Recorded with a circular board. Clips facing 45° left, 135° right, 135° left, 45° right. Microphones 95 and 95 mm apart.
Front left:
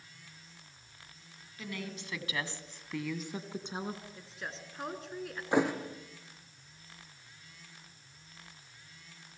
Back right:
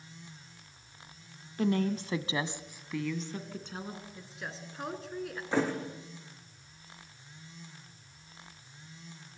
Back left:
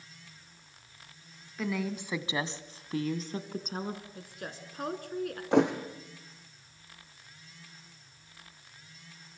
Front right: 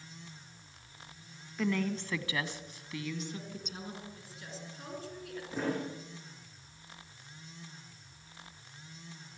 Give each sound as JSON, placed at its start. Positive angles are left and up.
{"t": 1.6, "sound": "a woman speaking", "azimuth_deg": -135, "distance_m": 1.6}
{"t": 4.2, "sound": "a woman speaking", "azimuth_deg": 135, "distance_m": 2.5}
{"t": 5.5, "sound": "a thud", "azimuth_deg": 120, "distance_m": 3.0}